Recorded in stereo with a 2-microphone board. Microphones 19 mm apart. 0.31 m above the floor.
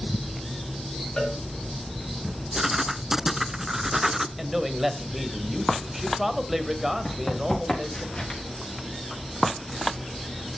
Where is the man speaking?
10° right (ahead or behind), 1.8 m.